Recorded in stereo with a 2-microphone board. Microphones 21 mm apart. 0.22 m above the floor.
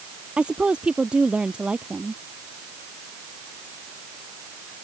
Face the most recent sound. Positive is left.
turn(degrees=-55)  # may be behind; listen again after turning